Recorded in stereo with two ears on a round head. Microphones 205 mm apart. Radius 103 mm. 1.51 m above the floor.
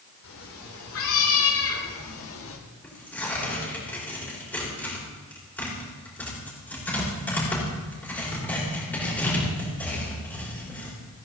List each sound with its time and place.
0.2 s a cat meowing: 65° left (ahead or behind), 3 m; by 2.6 s 60° left (ahead or behind), 1.5 m
2.8 s tearing paper: 10° left (ahead or behind), 5 m